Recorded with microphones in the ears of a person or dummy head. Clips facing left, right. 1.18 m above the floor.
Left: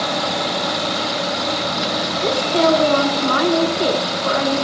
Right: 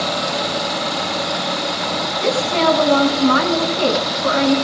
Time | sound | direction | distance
2.2 | a woman speaking | 60° right (ahead or behind) | 8 m